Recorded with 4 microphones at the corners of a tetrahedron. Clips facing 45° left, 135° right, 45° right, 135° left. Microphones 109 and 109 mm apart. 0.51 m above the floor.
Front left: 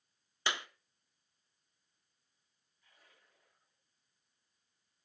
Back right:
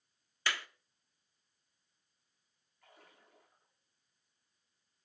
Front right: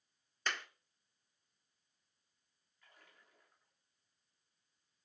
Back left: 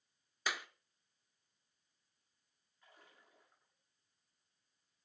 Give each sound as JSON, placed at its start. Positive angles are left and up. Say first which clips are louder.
{"t": 0.5, "sound": "a clap", "louder": "front left 1 dB, even", "azimuth_deg": 65, "distance_m": 0.6}
{"t": 2.8, "sound": "a splash", "louder": "back right 7 dB, back left 2 dB", "azimuth_deg": -150, "distance_m": 7.5}